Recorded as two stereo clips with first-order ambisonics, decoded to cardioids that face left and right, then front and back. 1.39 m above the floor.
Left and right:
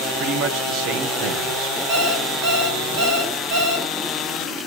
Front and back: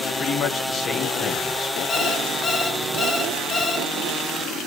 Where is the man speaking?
60° right, 1.6 m.